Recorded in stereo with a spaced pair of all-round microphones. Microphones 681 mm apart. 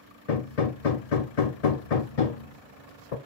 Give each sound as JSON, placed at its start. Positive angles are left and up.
{"t": 0.3, "sound": "hammering", "side_deg": 60, "distance_m": 0.8}